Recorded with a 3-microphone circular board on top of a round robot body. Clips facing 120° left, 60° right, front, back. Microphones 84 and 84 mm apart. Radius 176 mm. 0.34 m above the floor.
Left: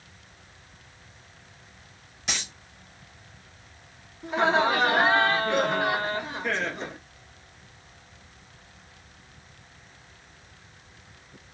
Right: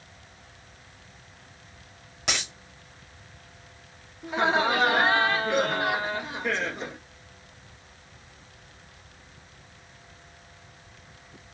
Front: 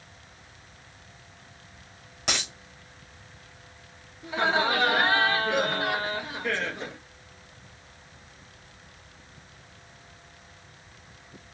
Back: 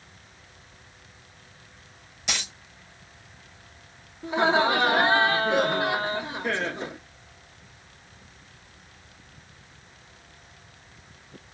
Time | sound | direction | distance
2.3 | a dropped coin | 30° right | 2.5 m
4.2 | laughter | 145° right | 1.3 m